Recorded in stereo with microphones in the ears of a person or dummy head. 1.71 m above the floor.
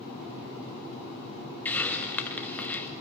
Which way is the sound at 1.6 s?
10° left (ahead or behind).